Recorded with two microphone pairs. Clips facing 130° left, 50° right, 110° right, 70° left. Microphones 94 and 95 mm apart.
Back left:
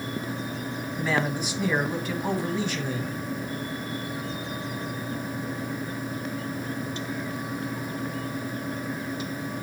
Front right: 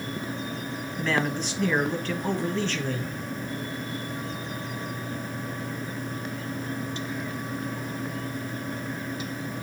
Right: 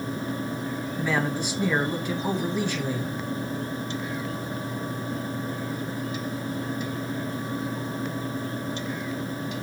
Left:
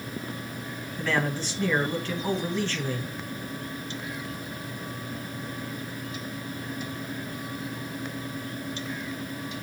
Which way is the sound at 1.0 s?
165° right.